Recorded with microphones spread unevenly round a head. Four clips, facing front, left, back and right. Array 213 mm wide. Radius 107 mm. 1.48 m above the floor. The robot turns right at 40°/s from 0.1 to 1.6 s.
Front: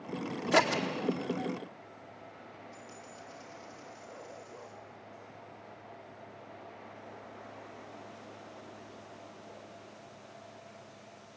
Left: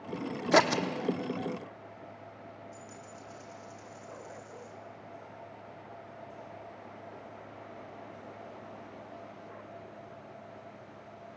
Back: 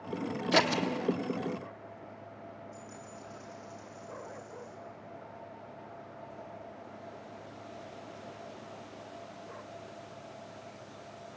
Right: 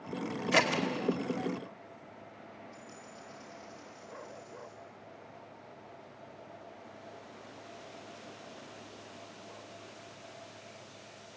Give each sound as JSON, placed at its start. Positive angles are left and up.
{"t": 0.5, "sound": "scissors", "azimuth_deg": 90, "distance_m": 1.1}
{"t": 2.7, "sound": "a dropped coin", "azimuth_deg": 80, "distance_m": 8.0}